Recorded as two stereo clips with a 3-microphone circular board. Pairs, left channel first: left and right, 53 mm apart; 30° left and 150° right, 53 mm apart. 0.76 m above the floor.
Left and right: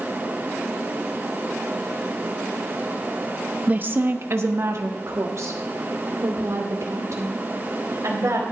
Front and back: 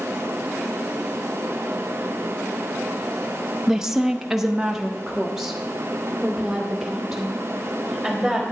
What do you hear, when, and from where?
3.7 s a woman speaking: 75° right, 0.6 m; by 8.4 s 65° right, 3.5 m